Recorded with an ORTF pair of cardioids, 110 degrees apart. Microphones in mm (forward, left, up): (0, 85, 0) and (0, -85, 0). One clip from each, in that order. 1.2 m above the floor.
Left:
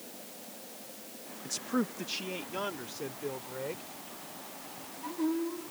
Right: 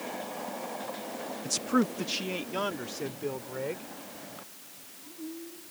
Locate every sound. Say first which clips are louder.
1.4 s a man speaking: right 5 dB; 35° right; by 3.9 s 20° right